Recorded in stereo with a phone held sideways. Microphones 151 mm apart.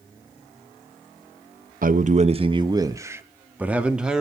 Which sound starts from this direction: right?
A man speaking, at 1.8 s.